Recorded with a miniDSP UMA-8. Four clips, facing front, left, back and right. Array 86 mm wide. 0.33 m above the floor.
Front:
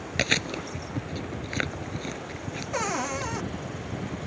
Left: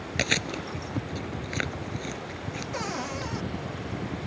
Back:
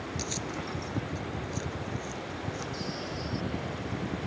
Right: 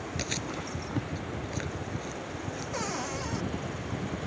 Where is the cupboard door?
5° left.